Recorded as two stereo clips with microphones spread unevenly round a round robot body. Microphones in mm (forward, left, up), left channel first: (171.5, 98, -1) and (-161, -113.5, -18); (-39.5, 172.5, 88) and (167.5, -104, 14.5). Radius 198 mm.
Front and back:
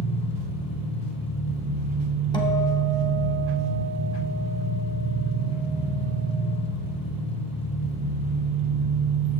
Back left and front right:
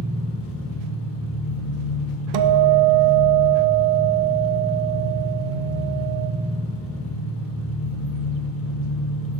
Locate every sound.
0.0 s an engine running: 80° left, 1.1 m
2.3 s a guitar: 50° right, 0.5 m